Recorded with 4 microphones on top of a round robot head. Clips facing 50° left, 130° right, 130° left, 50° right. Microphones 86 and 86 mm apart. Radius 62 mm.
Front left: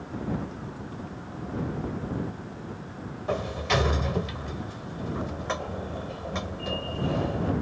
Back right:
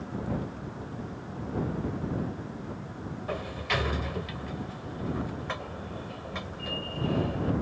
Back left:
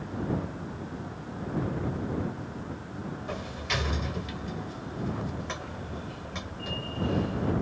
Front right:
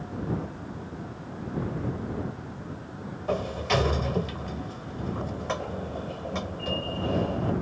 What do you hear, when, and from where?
3.3 s a sliding door: 10° right